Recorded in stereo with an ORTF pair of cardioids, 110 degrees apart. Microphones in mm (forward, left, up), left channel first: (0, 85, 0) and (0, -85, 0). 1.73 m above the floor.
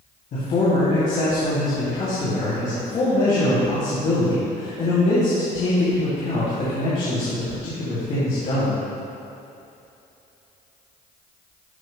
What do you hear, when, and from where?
0.3 s a man speaking: 55° left, 2.5 m